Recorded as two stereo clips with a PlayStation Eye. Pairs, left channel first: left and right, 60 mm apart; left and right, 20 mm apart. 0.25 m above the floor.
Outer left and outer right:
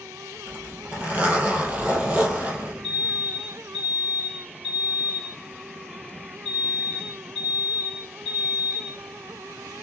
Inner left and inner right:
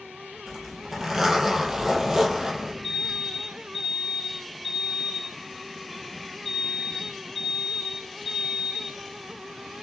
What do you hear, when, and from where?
0.5 s a zipper: 25° right (ahead or behind), 2.5 m
2.8 s an alarm: 5° right (ahead or behind), 3.5 m